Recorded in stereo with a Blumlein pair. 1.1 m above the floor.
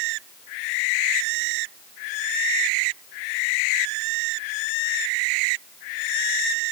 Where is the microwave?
No microwave in this recording.